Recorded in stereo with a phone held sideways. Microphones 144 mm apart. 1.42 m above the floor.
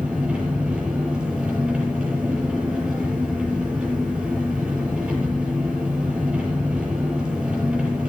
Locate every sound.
0.0 s an engine running: 5° right (ahead or behind), 8 m